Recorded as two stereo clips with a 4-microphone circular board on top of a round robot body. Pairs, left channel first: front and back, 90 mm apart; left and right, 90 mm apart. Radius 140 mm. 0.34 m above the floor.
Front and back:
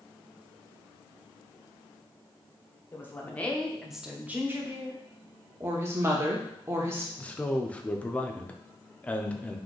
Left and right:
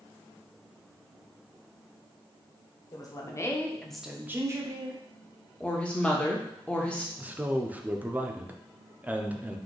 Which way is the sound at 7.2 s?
50° right.